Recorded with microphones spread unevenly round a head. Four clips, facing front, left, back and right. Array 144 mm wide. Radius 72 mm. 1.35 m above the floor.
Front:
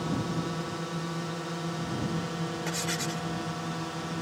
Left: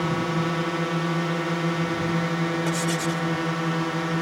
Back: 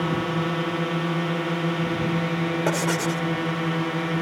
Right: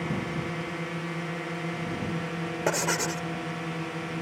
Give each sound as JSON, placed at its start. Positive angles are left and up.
{"t": 0.0, "sound": "a drone", "azimuth_deg": 140}
{"t": 2.7, "sound": "writing", "azimuth_deg": -150}